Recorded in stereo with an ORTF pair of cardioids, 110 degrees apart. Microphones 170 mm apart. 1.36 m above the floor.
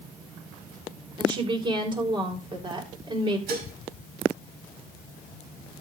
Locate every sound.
1.2 s a woman speaking: 30° right, 4.5 m
3.5 s dishes clattering: 65° right, 5.5 m